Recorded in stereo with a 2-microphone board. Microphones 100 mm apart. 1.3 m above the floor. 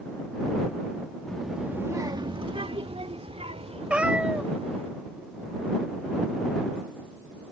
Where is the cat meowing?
10° right (ahead or behind).